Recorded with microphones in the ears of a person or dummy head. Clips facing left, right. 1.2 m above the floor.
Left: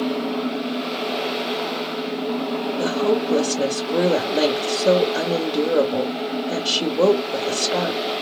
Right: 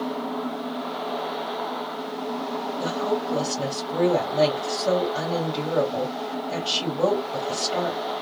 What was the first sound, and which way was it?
A woman speaking, 70° left (ahead or behind).